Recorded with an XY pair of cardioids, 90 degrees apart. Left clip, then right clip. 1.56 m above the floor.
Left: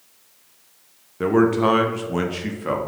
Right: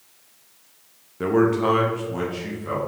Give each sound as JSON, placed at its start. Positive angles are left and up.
{"t": 1.2, "sound": "a man speaking", "azimuth_deg": 20, "distance_m": 0.7}